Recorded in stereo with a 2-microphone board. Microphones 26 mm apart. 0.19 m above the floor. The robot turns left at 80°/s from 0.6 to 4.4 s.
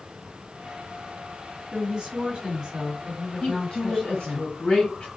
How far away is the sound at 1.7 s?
About 2 m.